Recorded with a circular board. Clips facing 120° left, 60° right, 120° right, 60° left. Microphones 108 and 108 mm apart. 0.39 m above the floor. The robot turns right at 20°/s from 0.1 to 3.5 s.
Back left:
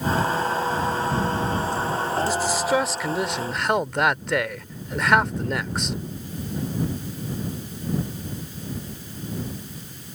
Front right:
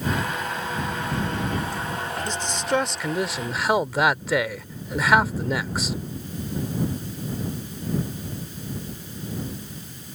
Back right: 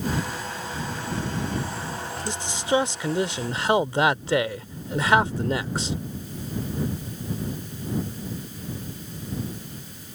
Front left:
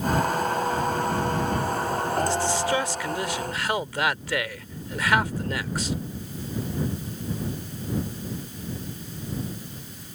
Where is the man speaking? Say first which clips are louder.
Back left 4 dB, front left 2 dB; 165° right; by 6.0 s 140° right.